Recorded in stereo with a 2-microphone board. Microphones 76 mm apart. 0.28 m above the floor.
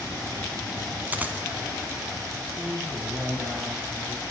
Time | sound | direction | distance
1.1 | a dropped coin | 25° right (ahead or behind) | 1.1 m
2.6 | a man speaking | centre (ahead or behind) | 2.5 m